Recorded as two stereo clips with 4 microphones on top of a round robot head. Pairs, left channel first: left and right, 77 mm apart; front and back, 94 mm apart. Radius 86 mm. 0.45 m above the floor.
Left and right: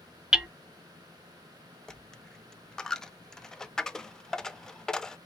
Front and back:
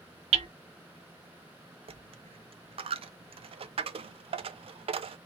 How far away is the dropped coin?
About 0.5 m.